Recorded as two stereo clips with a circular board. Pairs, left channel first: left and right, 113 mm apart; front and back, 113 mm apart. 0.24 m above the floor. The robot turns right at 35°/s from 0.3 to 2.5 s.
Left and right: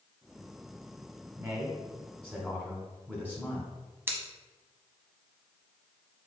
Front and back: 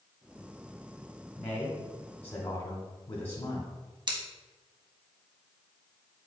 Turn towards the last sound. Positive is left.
turn(degrees=-155)